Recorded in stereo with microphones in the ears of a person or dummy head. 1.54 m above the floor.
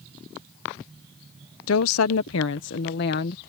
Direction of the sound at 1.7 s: 80° left.